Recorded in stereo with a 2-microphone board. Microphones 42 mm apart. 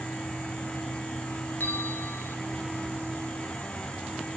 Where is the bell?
50° left (ahead or behind), 1.2 m.